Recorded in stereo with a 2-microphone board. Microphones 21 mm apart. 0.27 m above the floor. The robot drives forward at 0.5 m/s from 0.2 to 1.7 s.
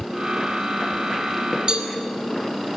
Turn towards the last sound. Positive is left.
turn(degrees=-45)  # may be behind; listen again after turning